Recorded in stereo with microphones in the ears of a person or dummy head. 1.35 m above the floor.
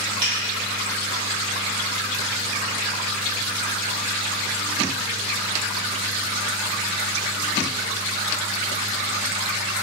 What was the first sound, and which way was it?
A finger snap, 50° right (ahead or behind).